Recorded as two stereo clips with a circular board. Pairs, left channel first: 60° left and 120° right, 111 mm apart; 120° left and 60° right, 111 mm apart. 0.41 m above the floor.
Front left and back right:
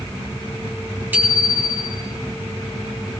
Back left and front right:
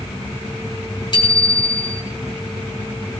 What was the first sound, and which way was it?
A bicycle bell, 170° left.